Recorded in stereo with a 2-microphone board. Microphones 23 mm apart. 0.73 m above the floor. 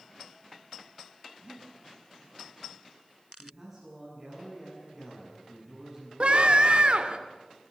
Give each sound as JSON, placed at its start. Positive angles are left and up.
{"t": 1.4, "sound": "breathing", "side_deg": -30, "distance_m": 4.5}
{"t": 3.4, "sound": "a man speaking", "side_deg": -15, "distance_m": 8.0}
{"t": 6.2, "sound": "a scream", "side_deg": -50, "distance_m": 2.0}